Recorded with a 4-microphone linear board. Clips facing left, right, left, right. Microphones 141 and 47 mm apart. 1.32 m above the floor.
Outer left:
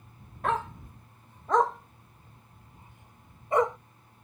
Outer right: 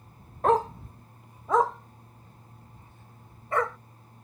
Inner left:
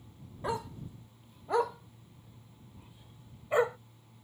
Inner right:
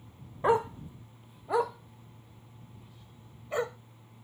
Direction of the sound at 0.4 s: 40° right (ahead or behind).